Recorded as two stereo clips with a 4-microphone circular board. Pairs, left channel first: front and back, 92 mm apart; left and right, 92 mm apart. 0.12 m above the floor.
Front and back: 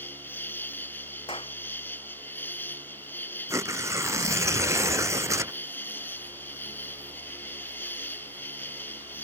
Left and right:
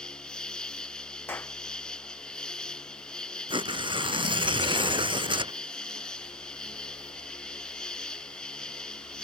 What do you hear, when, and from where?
0.0 s an insect: 25° left
1.3 s a clap: 20° left
3.5 s tearing paper: 120° right